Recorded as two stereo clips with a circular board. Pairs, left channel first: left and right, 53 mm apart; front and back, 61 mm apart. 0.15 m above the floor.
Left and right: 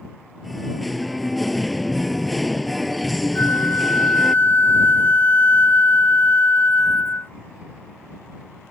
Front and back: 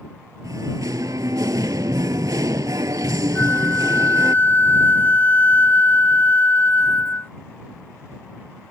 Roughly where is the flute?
Ahead left.